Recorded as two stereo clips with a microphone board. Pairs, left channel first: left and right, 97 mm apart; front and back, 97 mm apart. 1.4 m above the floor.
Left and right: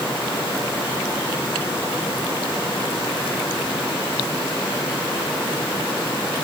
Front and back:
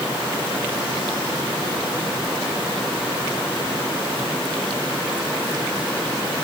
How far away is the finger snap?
I don't hear a finger snap.